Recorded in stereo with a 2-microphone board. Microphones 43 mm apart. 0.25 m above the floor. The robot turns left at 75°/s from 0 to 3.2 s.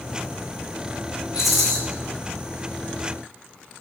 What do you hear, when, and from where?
1.3 s a rattle: 165° right, 3 m; by 1.8 s 165° left, 3 m